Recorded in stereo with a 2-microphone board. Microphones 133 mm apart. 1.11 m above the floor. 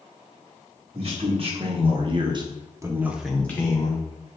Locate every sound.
0.9 s a man speaking: 45° right (ahead or behind), 1.8 m; by 4.0 s 30° left (ahead or behind), 0.8 m